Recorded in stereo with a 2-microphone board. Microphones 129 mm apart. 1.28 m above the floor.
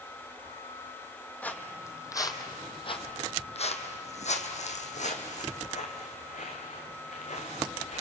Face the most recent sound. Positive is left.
turn(degrees=60)  # may be behind; listen again after turning